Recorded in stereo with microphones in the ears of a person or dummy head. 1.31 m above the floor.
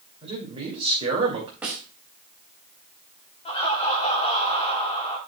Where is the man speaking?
30° right (ahead or behind), 2.5 m.